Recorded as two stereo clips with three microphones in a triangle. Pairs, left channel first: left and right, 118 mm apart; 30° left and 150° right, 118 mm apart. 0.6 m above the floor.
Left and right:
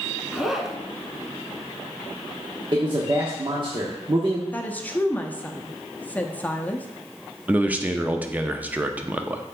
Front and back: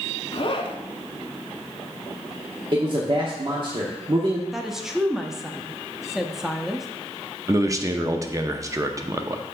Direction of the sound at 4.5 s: 130° left.